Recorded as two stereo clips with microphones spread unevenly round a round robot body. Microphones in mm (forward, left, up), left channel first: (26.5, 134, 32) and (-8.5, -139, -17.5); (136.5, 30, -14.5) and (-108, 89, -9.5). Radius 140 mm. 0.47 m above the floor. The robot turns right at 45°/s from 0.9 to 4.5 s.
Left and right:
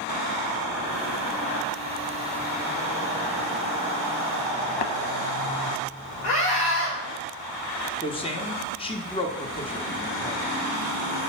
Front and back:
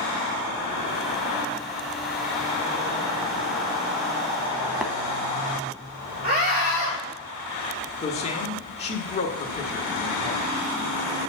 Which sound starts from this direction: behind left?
A scream, at 6.2 s.